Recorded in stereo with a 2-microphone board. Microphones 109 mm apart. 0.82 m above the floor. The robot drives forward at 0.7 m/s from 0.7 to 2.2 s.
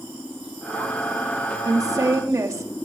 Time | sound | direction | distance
1.6 | a woman speaking | 35° right (ahead or behind) | 1.3 m